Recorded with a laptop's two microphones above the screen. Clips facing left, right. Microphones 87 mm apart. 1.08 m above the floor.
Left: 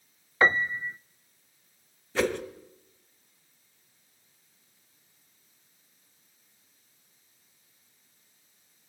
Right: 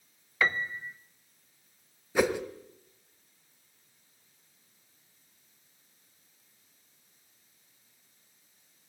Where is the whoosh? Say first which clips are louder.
Right 1 dB; 10° right (ahead or behind), 1.9 m.